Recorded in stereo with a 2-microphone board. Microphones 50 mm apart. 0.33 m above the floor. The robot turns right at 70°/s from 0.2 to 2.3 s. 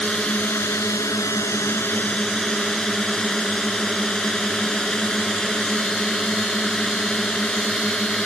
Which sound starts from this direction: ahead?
A drone, at 0.0 s.